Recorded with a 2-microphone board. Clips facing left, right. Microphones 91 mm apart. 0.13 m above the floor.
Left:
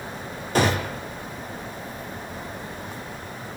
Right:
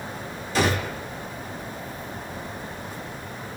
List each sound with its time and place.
0.6 s a gunshot: 50° left (ahead or behind), 1.6 m